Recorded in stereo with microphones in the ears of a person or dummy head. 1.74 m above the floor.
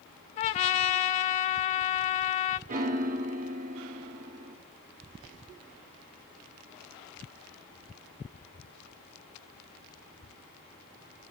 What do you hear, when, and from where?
0.4 s a trumpet: 40° left (ahead or behind), 0.6 m
2.7 s a piano: 30° right (ahead or behind), 0.7 m